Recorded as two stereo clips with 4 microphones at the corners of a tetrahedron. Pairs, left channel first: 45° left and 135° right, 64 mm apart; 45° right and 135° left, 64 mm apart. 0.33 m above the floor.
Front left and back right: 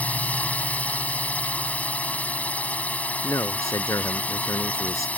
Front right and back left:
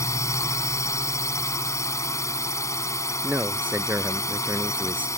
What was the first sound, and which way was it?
A drone, 20° right.